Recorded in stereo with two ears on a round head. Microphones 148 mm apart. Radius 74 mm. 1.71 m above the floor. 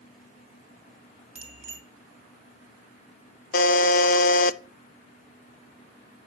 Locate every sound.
1.4 s a bicycle bell: 10° right (ahead or behind), 2.5 m
3.5 s a buzzer: 55° left (ahead or behind), 0.7 m